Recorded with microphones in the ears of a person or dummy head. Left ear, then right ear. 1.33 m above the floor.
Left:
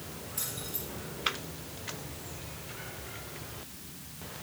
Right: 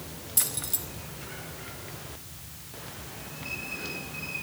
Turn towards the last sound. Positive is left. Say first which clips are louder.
# right 7 dB
turn(degrees=-55)  # may be behind; listen again after turning